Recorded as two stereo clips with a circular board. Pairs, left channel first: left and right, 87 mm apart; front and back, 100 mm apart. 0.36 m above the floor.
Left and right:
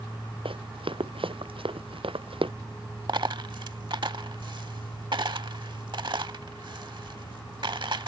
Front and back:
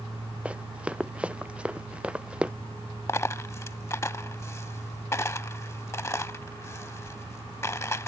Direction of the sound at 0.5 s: 100° right.